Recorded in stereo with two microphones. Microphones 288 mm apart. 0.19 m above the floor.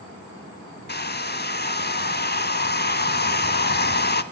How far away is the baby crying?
No baby crying in this recording.